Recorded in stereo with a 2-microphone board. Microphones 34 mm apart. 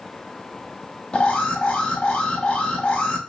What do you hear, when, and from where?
1.1 s an alarm: 35° left (ahead or behind), 0.7 m